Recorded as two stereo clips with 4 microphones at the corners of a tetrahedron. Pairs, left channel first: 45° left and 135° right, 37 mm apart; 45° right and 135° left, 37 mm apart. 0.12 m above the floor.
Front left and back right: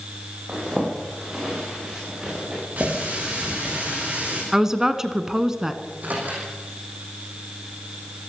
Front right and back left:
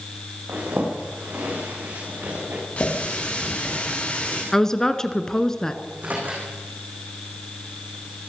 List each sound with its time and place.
0.5 s a zipper: 155° left, 9 m
2.8 s a running tap: 95° right, 10 m
4.5 s a woman speaking: 80° right, 1.4 m
5.8 s a microwave: straight behind, 6.5 m